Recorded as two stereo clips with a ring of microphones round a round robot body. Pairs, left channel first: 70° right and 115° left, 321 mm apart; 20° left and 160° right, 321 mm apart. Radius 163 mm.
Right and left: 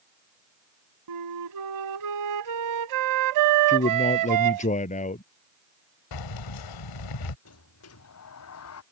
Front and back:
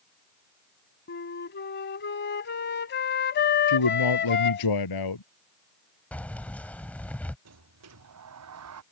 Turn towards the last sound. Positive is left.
turn(degrees=-115)